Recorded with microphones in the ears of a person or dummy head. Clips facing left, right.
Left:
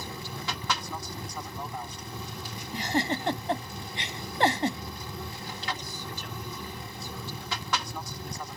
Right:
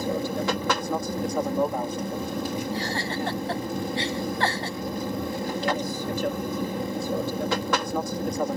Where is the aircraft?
50° right (ahead or behind).